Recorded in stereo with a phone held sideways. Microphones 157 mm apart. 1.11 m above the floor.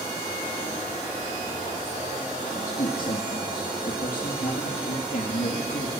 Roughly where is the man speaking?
Left.